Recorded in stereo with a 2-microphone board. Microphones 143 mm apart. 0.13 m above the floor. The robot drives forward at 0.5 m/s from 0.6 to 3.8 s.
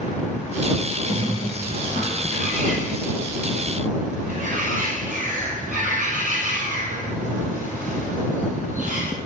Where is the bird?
60° right (ahead or behind), 3.5 m; by 9.1 s 70° right (ahead or behind), 3 m.